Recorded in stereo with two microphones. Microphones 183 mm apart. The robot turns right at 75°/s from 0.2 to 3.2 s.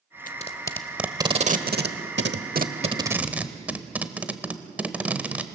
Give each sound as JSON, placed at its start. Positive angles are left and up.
{"t": 0.3, "sound": "tape being pulled", "side_deg": 50, "distance_m": 0.9}